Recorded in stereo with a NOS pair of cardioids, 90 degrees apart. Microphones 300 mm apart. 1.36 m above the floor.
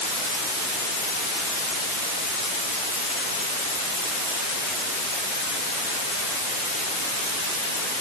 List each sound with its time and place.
Only background noise.